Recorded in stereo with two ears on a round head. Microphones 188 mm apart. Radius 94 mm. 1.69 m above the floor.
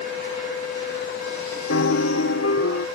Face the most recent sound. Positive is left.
turn(degrees=70)  # may be behind; listen again after turning